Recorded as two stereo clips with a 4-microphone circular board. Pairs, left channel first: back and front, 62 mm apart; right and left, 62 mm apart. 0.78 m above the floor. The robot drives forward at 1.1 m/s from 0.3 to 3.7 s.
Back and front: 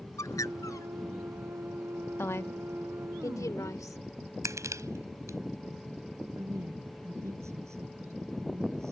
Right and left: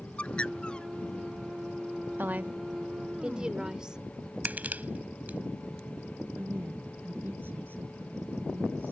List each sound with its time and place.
0.2 s a bird: 160° right; by 0.9 s 165° right
2.2 s a woman speaking: 140° left; by 4.0 s 165° left
4.5 s crushing: 30° left
6.4 s a woman speaking: 35° left